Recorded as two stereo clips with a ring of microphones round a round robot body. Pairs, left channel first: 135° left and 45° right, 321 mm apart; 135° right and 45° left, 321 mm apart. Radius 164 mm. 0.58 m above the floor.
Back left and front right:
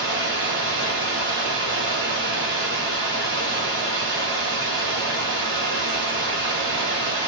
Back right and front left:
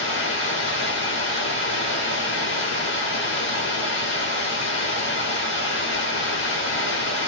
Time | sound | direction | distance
0.0 | running water | 90° right | 1.3 m